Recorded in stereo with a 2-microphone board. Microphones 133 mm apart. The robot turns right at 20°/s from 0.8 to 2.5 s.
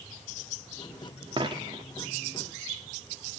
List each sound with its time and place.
1.4 s a dropped coin: 40° right (ahead or behind), 0.8 m; by 1.8 s 30° right (ahead or behind), 0.8 m